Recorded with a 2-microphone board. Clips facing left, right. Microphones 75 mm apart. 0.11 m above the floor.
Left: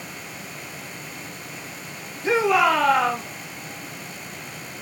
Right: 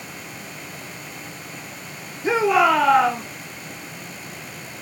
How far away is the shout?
About 3 m.